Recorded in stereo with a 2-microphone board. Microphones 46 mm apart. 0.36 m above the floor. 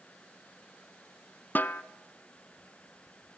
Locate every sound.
1.6 s a snare drum: 45° left (ahead or behind), 0.9 m